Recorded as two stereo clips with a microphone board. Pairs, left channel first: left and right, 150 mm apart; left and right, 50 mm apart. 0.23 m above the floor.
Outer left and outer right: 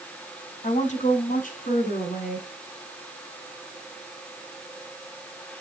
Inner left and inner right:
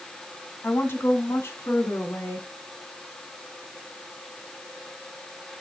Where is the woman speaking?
50° left (ahead or behind), 1.5 m; by 2.5 s 70° left (ahead or behind), 3 m.